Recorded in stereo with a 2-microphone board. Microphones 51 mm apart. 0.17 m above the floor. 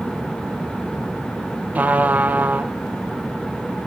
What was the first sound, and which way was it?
A trumpet, 35° right (ahead or behind).